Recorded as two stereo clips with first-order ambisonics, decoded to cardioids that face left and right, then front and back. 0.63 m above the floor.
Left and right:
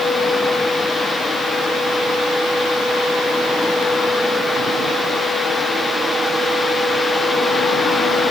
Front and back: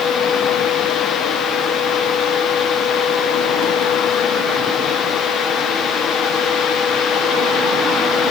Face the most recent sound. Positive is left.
No sound to turn to.